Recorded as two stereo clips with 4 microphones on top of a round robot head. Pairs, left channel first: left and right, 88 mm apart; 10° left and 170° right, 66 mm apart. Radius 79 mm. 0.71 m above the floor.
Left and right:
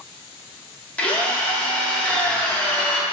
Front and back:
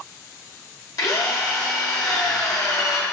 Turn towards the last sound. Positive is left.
turn(degrees=15)